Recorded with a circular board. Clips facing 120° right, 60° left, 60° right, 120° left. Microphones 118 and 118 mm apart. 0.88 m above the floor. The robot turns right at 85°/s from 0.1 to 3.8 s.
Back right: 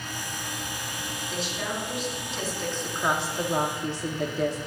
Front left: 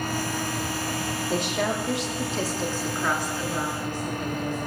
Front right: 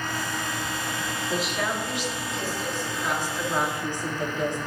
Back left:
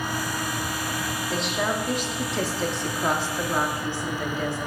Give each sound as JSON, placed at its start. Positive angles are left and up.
{"t": 1.3, "sound": "a woman speaking", "azimuth_deg": 15, "distance_m": 1.9}